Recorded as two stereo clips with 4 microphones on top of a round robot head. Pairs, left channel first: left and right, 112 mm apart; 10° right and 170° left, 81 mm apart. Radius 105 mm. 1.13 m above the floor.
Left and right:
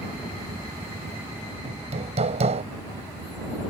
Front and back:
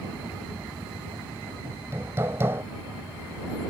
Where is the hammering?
120° right.